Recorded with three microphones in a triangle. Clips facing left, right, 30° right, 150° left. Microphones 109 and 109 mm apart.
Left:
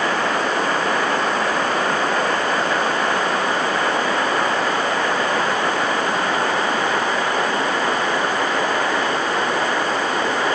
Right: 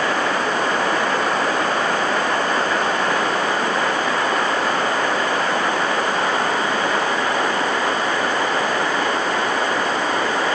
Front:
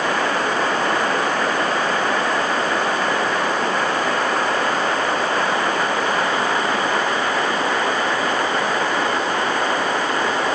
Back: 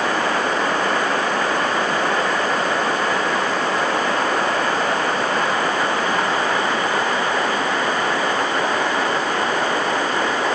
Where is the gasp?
No gasp in this recording.